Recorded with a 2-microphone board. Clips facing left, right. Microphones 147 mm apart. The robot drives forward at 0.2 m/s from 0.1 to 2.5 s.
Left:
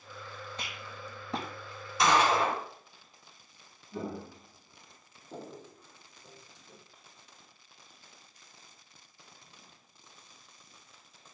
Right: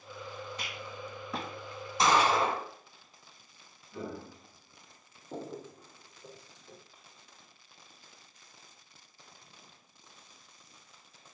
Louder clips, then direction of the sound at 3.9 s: Left 2 dB; 35° left (ahead or behind).